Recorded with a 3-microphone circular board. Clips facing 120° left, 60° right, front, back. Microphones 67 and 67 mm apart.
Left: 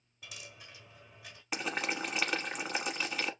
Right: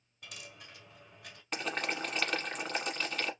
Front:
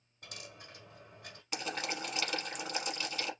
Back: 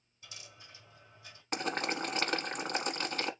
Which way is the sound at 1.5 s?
160° right.